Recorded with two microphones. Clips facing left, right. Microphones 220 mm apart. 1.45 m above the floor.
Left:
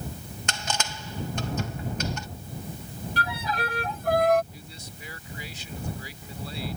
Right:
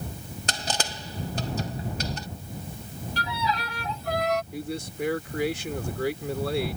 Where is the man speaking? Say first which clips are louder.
Right 13 dB; 75° right (ahead or behind).